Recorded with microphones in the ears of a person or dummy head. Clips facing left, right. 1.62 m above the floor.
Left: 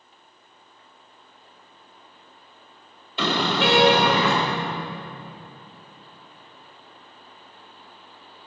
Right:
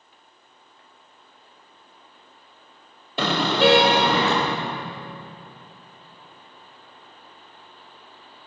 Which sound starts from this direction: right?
A car horn, at 3.2 s.